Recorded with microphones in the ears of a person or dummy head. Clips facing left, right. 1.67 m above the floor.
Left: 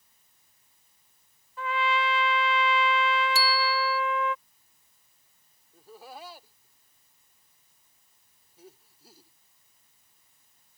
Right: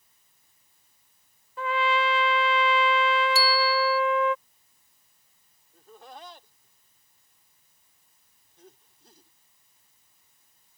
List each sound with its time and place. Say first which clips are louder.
1.6 s a trumpet: right 3 dB; 25° right (ahead or behind)
3.4 s a bicycle bell: right 4 dB; 45° left (ahead or behind)
5.7 s laughter: left 1 dB; 5° left (ahead or behind)